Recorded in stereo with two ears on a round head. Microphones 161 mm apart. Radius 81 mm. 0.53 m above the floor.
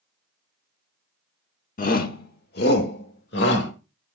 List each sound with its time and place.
1.8 s a shout: 50° left (ahead or behind), 1.4 m; by 3.7 s 65° left (ahead or behind), 2.5 m